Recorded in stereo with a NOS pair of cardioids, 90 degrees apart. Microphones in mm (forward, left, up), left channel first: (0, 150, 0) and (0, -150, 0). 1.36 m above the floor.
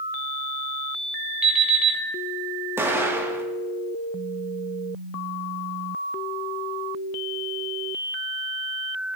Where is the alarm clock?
5° right, 3 m.